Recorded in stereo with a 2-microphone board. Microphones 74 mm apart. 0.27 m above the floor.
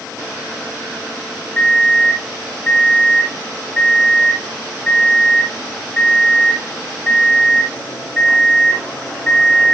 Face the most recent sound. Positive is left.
turn(degrees=10)  # may be behind; listen again after turning